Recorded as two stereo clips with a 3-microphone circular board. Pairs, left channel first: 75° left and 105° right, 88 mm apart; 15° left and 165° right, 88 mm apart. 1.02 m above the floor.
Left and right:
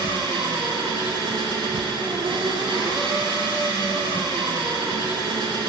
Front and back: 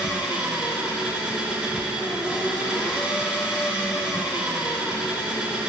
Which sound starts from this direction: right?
An engine running, at 0.0 s.